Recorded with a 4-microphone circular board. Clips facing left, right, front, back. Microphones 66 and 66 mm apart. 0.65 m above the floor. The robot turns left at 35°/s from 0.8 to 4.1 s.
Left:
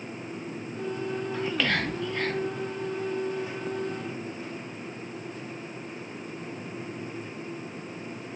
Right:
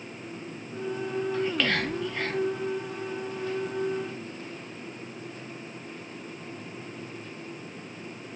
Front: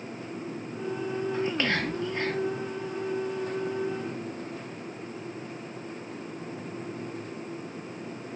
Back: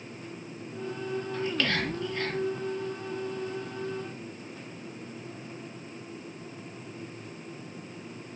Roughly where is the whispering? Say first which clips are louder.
Even, front 1 dB; ahead.